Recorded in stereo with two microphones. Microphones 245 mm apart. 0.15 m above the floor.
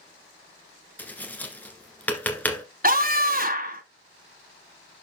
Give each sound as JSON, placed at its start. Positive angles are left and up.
{"t": 1.0, "sound": "tapping", "side_deg": 5, "distance_m": 1.6}
{"t": 2.8, "sound": "a scream", "side_deg": -35, "distance_m": 1.3}